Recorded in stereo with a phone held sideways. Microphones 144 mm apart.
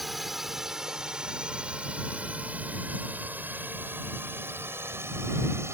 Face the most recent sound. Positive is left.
turn(degrees=-20)  # may be behind; listen again after turning